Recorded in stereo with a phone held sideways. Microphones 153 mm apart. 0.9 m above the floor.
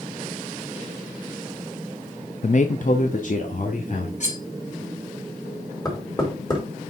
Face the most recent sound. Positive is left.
turn(degrees=25)  # may be behind; listen again after turning